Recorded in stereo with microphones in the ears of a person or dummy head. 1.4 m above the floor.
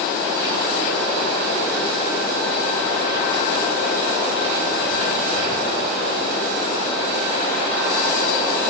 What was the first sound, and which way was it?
Only background noise.